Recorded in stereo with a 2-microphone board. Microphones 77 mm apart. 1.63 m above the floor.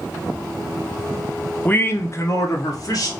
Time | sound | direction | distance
1.6 | a man speaking | 25° left (ahead or behind) | 0.5 m